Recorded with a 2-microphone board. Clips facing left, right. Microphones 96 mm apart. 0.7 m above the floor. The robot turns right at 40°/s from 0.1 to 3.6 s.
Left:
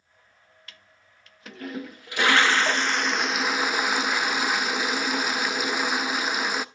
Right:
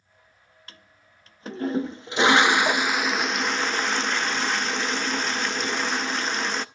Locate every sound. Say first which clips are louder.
0.7 s a toilet flushing: right 3 dB; 100° right, 0.6 m; by 6.7 s 15° left, 0.6 m